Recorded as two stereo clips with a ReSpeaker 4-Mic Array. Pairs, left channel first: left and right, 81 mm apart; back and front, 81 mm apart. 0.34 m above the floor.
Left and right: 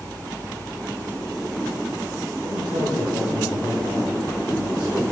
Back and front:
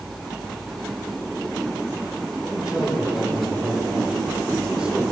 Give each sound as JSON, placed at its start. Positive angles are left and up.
{"t": 2.4, "sound": "a man speaking", "azimuth_deg": -80, "distance_m": 8.0}